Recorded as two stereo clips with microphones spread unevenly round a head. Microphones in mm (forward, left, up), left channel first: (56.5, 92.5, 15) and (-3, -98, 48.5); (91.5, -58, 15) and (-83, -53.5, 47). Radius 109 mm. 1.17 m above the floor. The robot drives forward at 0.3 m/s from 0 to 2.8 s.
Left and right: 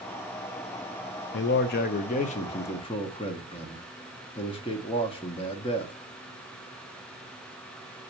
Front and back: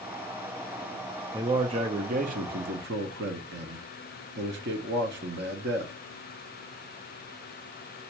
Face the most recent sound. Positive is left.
turn(degrees=135)